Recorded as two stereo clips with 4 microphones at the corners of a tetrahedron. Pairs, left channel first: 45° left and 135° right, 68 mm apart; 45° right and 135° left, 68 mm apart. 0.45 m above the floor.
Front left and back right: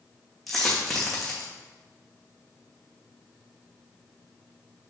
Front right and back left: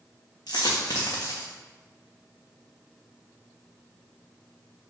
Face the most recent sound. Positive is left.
turn(degrees=-40)